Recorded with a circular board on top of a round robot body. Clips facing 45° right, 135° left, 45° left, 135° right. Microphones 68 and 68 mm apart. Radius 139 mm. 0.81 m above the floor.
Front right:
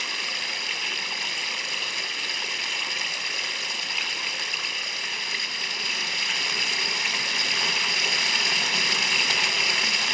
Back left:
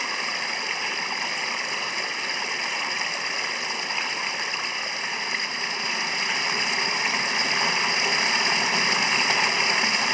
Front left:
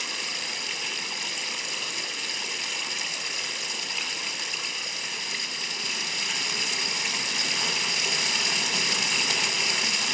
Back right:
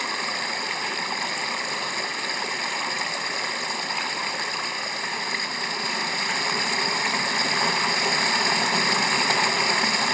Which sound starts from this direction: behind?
Running water, at 0.0 s.